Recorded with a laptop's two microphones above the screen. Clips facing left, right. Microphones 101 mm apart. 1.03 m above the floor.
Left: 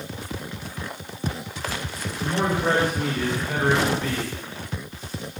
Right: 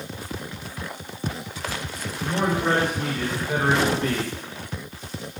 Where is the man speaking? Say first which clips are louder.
Even; 30° left (ahead or behind), 1.5 m; by 4.3 s 65° right (ahead or behind), 0.7 m.